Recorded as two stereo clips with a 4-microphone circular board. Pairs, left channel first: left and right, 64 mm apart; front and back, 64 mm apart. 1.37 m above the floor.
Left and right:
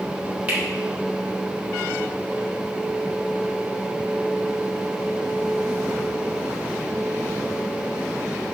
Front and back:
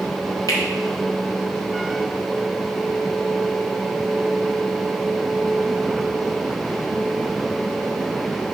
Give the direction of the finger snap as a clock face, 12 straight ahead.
1 o'clock.